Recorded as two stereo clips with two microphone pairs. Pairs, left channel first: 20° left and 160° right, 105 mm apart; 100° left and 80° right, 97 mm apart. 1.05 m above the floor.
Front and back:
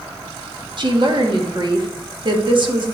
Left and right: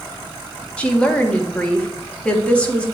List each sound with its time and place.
0.8 s a woman speaking: 175° left, 1.3 m